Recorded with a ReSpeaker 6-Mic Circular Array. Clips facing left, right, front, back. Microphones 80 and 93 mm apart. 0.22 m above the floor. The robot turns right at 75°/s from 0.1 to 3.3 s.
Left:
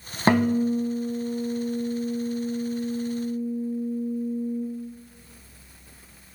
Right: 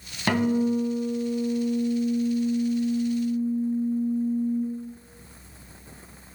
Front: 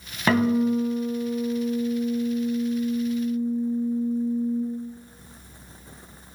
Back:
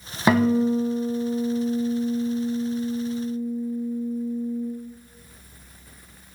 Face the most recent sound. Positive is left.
turn(degrees=-15)